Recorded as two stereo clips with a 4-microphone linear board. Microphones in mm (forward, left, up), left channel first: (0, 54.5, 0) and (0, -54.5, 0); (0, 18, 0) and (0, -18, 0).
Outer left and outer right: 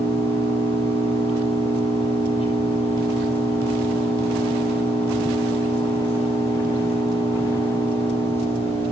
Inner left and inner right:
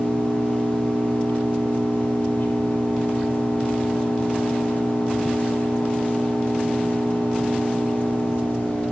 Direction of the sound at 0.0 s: 70° left (ahead or behind).